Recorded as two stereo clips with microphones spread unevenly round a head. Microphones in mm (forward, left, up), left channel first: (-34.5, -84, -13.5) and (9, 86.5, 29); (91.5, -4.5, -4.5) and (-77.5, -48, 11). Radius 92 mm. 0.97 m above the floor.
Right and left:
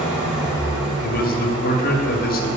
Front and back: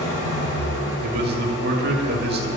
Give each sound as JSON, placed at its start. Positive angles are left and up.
{"t": 0.0, "sound": "an engine running", "azimuth_deg": -10, "distance_m": 5.5}
{"t": 1.0, "sound": "a man speaking", "azimuth_deg": -135, "distance_m": 2.5}